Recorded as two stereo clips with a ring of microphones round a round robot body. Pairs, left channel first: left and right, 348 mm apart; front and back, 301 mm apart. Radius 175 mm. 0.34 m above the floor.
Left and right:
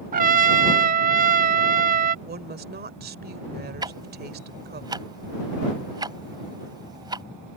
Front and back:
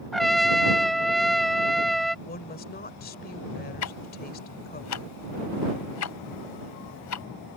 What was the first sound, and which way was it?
A trumpet, 90° right.